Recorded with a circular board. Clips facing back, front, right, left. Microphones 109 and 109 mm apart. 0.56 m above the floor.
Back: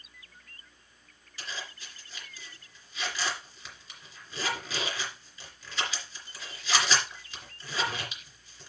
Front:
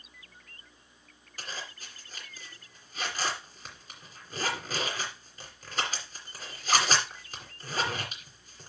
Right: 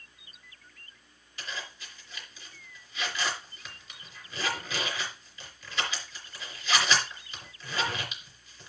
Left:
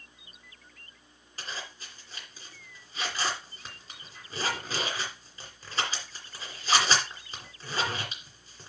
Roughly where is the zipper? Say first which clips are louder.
Even, even; ahead left.